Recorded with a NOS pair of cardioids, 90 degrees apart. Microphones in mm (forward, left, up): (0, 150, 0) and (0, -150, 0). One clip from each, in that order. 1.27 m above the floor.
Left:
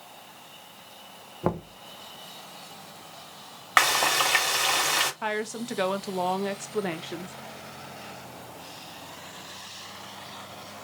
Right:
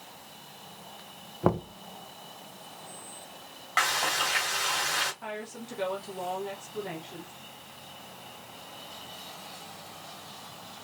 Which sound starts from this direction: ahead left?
Frying, at 3.8 s.